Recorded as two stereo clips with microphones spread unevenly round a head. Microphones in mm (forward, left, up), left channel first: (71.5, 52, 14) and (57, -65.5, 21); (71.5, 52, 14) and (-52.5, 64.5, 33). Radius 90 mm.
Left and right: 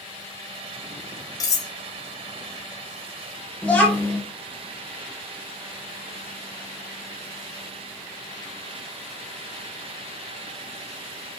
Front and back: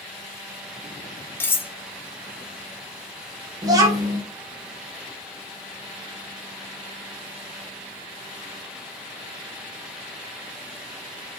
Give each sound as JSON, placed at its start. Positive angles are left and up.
{"t": 1.4, "sound": "cutlery clinking", "azimuth_deg": 65, "distance_m": 0.6}
{"t": 3.6, "sound": "a child speaking", "azimuth_deg": 160, "distance_m": 0.9}